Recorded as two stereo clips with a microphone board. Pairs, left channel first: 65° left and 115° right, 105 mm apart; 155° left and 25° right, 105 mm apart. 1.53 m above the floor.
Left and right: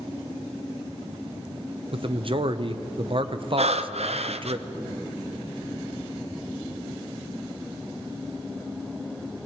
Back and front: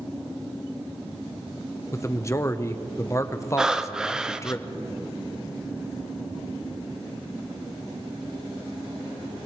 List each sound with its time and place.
1.9 s a man speaking: 140° right, 0.8 m
3.6 s breathing: 105° right, 0.6 m